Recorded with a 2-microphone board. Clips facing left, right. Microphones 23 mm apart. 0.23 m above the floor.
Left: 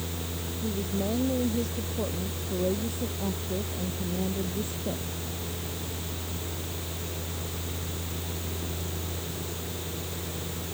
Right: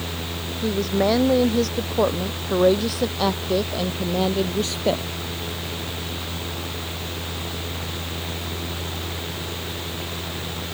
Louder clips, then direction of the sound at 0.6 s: Right 10 dB; 70° right (ahead or behind).